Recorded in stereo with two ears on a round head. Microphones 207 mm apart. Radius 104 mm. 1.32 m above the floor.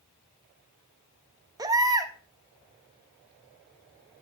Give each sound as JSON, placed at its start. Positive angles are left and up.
{"t": 1.6, "sound": "a baby crying", "side_deg": -15, "distance_m": 0.8}